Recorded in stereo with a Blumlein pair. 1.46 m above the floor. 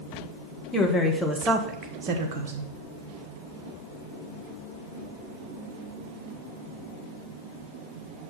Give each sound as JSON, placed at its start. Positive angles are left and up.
{"t": 0.7, "sound": "a woman speaking", "azimuth_deg": 20, "distance_m": 1.7}